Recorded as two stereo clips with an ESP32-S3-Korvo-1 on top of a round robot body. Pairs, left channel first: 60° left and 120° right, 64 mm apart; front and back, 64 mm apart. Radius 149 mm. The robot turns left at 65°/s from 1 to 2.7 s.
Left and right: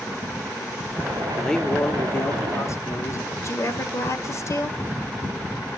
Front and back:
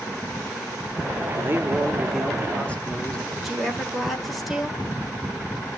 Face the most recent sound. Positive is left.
turn(degrees=90)